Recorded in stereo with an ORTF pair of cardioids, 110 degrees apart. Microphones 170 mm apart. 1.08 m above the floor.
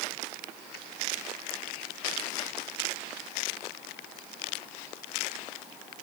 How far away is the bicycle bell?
I don't hear a bicycle bell.